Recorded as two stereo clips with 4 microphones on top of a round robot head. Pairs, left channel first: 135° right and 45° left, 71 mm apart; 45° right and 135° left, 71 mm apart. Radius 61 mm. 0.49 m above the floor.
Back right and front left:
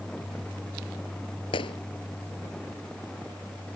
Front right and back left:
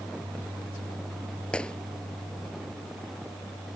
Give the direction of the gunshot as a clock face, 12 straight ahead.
4 o'clock.